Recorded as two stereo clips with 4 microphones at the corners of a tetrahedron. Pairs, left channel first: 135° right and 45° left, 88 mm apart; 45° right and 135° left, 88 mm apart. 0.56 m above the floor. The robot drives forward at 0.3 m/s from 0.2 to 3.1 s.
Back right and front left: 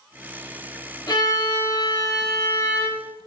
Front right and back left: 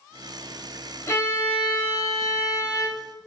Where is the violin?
105° right, 0.5 m; by 3.1 s 145° right, 0.9 m.